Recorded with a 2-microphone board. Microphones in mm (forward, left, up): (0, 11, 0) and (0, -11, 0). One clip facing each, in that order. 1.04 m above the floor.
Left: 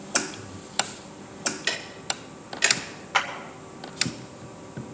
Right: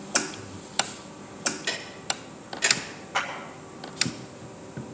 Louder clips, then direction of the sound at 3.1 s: Left 4 dB; 70° left (ahead or behind).